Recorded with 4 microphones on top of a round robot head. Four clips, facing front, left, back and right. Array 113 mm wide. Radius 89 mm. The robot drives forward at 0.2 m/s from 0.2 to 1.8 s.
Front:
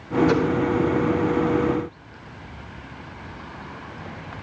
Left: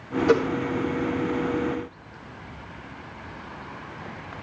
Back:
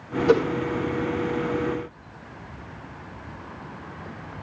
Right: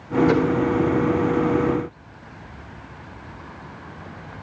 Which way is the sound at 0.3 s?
130° left.